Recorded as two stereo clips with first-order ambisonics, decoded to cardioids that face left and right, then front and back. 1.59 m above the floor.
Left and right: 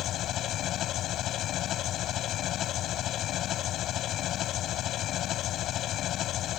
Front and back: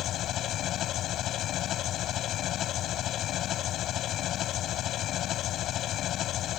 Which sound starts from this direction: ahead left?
An engine running, at 0.0 s.